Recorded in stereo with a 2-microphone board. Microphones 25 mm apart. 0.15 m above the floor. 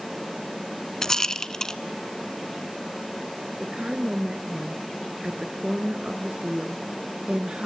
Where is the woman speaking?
45° right (ahead or behind), 1.7 m.